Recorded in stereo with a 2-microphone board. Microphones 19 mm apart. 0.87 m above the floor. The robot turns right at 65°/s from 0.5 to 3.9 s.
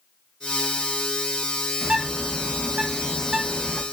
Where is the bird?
130° right, 0.9 m; by 3.8 s straight ahead, 0.9 m.